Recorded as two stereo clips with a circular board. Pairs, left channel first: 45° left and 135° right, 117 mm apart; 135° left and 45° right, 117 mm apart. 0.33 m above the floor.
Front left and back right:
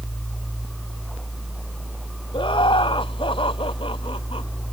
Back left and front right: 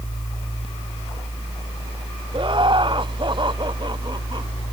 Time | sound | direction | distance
2.3 | laughter | straight ahead | ?